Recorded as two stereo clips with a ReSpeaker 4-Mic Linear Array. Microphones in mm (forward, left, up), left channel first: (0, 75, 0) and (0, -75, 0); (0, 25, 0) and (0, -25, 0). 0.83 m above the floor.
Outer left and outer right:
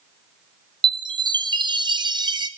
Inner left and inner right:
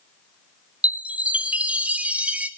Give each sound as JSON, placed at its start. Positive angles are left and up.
{"t": 0.8, "sound": "a chime", "side_deg": -30, "distance_m": 0.9}